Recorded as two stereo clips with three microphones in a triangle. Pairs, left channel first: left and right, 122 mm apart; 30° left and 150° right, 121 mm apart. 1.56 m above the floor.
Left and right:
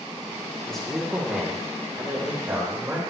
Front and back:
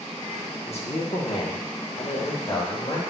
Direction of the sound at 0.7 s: 5° left.